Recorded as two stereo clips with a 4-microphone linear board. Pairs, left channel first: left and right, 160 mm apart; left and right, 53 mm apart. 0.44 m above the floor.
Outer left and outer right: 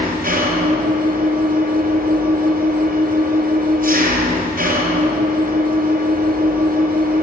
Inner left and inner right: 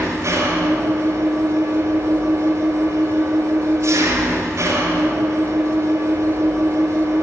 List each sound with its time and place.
0.0 s an engine running: 65° right (ahead or behind), 3 m